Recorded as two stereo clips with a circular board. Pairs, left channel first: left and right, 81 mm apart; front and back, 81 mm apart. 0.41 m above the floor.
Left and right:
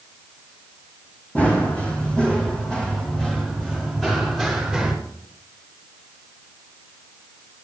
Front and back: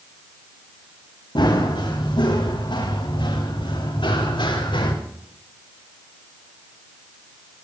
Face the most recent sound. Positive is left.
turn(degrees=0)